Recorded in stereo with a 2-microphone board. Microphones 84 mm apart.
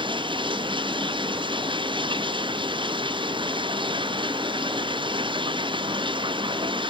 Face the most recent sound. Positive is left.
turn(degrees=-75)  # may be behind; listen again after turning